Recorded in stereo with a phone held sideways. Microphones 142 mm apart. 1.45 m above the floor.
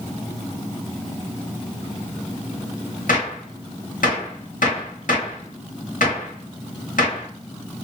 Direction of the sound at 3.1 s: 90° left.